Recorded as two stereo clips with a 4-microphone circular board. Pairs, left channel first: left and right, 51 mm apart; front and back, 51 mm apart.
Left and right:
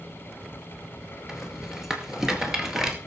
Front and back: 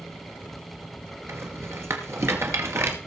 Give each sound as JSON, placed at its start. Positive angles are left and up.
{"t": 1.3, "sound": "a rattle", "azimuth_deg": -170, "distance_m": 2.5}